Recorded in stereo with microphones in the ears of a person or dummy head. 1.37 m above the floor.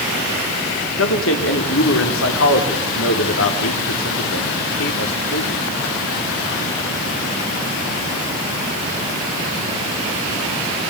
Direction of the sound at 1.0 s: 70° left (ahead or behind).